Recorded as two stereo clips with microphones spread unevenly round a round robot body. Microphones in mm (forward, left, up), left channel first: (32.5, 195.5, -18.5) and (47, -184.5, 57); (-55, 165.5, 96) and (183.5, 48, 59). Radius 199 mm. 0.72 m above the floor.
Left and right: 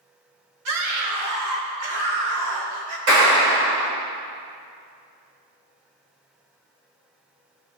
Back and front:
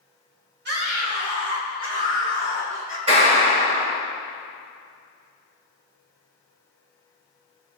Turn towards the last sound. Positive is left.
turn(degrees=-100)